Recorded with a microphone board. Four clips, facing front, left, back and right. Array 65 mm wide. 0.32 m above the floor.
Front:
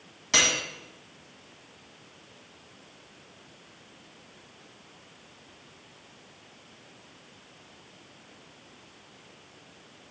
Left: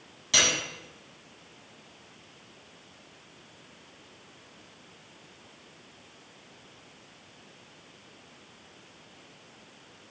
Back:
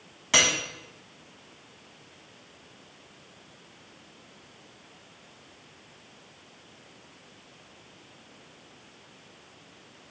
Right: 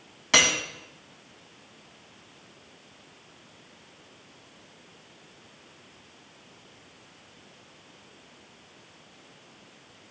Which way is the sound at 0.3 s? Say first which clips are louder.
Right 4 dB, back 1 dB; 105° right.